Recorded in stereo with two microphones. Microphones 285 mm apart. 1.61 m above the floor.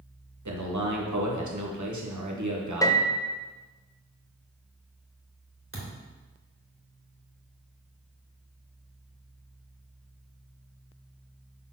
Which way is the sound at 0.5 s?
85° right.